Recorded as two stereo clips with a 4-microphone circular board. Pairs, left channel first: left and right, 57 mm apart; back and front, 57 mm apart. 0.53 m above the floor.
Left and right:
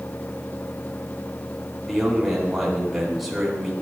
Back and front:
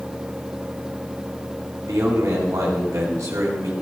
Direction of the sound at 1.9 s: 5° right.